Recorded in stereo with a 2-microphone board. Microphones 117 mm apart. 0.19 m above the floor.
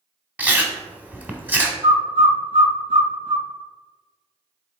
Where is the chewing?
15° right (ahead or behind), 1.0 m.